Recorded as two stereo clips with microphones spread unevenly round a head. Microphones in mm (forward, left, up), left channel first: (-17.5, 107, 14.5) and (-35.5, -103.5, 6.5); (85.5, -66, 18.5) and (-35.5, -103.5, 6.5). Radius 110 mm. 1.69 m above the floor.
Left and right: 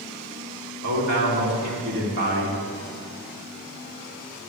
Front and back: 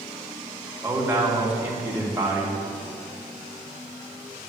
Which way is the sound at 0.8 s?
90° right.